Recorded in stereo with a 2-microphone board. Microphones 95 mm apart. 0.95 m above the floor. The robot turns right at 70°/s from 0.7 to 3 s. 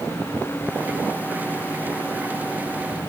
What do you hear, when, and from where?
Only background noise.